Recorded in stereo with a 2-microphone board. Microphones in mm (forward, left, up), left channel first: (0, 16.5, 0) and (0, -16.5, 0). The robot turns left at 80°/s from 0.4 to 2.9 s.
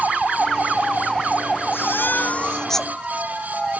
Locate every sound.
1.7 s a baby crying: 95° left; by 2.9 s straight ahead